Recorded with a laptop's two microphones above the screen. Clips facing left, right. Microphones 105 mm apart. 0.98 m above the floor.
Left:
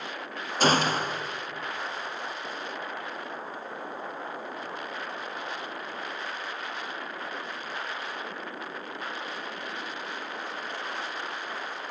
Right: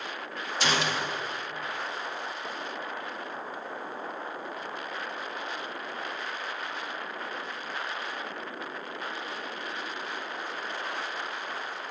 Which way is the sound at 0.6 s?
40° left (ahead or behind).